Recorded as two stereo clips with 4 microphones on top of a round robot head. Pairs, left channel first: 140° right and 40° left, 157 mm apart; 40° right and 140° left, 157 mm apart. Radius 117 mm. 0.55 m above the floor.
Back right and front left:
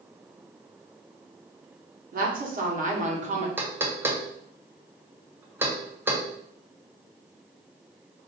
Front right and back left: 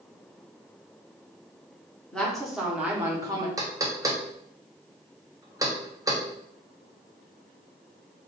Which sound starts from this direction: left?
Knocking, at 3.6 s.